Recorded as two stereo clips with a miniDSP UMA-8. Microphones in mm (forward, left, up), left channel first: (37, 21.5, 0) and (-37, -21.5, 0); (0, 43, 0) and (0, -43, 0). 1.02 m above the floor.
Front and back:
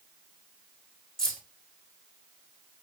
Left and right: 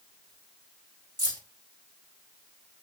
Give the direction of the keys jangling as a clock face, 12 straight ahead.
2 o'clock.